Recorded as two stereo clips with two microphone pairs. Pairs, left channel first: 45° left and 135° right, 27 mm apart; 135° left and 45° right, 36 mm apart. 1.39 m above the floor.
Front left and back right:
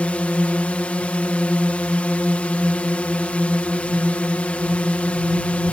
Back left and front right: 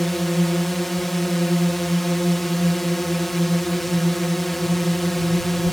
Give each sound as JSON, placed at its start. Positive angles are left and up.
{"t": 0.0, "sound": "a drone", "azimuth_deg": 50}